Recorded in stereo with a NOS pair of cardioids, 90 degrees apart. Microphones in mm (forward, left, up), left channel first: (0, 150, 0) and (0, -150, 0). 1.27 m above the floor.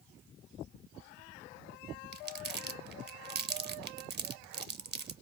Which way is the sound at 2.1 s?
35° right.